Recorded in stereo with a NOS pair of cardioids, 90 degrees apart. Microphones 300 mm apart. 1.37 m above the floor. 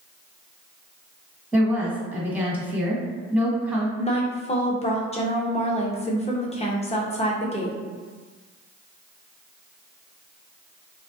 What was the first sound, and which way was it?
A woman speaking, 5° right.